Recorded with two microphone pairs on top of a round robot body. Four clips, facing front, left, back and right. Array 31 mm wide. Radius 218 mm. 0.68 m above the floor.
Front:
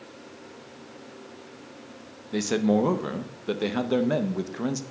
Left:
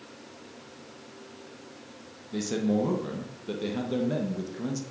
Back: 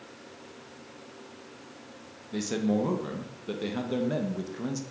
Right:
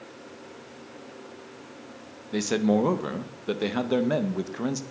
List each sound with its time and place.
2.3 s a man speaking: 50° right, 1.0 m